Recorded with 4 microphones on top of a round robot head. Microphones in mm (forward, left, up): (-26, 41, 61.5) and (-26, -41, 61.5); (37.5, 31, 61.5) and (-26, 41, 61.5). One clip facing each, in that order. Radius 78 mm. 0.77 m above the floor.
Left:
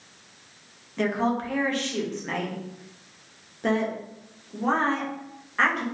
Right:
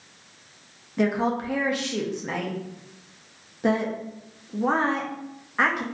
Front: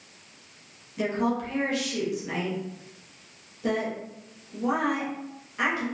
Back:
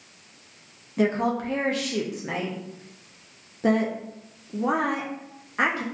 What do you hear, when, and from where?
1.0 s a woman speaking: 165° right, 0.6 m